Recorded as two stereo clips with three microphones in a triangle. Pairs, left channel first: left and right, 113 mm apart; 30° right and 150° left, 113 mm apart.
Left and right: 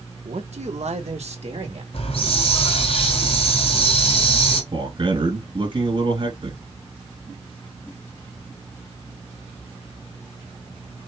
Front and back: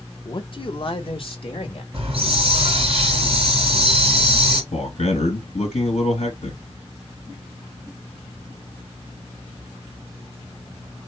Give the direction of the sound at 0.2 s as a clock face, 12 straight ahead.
3 o'clock.